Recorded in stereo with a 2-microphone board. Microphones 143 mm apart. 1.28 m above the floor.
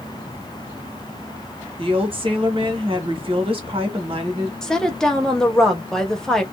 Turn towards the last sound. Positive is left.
turn(degrees=5)  # may be behind; listen again after turning